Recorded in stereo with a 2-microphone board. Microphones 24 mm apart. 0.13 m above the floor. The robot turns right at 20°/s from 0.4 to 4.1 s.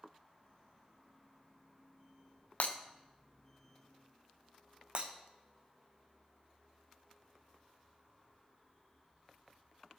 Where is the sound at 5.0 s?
50° right (ahead or behind), 1.4 m.